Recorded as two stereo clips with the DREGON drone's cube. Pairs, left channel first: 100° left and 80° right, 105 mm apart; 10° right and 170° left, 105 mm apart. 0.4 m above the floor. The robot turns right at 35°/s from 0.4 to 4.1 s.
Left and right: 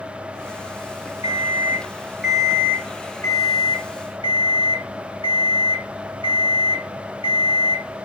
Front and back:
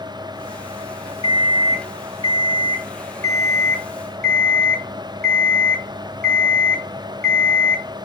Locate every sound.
1.2 s an alarm clock: 30° right, 0.7 m; by 7.8 s 75° left, 0.7 m